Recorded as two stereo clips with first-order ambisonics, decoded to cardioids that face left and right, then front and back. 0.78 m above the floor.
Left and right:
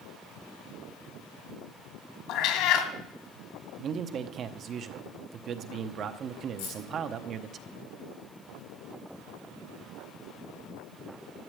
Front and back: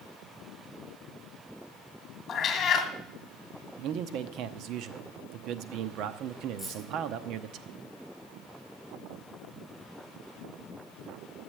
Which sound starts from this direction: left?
Keys jangling, at 6.6 s.